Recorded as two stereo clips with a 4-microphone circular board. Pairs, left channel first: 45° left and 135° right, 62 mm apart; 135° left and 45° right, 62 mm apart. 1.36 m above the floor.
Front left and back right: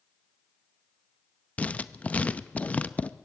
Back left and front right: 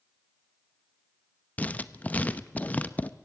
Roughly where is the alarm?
No alarm in this recording.